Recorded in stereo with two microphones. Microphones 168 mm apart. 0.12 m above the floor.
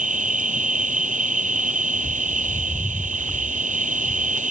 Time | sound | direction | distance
0.0 | an insect | 50° right (ahead or behind) | ?
1.9 | a bird | 20° left (ahead or behind) | ?